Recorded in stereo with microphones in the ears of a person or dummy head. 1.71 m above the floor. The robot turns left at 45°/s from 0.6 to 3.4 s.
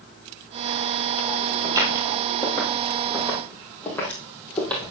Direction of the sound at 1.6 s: 20° right (ahead or behind).